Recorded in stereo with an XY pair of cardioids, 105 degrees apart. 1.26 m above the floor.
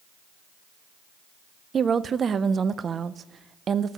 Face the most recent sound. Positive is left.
turn(degrees=-45)